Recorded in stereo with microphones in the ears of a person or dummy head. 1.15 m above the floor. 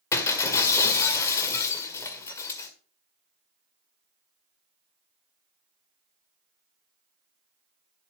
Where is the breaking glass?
20° left (ahead or behind), 1.8 m.